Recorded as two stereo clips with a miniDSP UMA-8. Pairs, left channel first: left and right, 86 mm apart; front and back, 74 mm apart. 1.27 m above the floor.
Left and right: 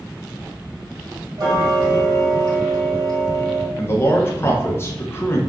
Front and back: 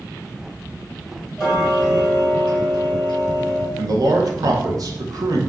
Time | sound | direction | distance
1.4 | ticking | 85° right | 1.4 m
3.8 | a man speaking | 150° left | 0.6 m